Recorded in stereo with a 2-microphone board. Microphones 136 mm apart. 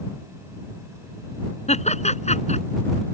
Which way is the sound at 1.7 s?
50° left (ahead or behind).